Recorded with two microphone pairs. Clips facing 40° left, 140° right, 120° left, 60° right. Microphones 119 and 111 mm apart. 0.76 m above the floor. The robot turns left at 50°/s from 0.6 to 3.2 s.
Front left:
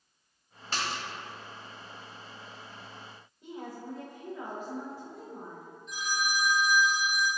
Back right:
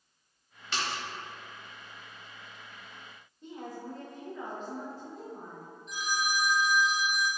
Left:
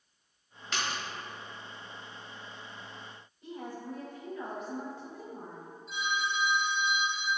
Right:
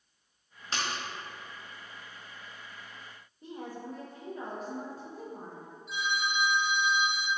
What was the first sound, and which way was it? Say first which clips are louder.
A splash: even, even; 5° right.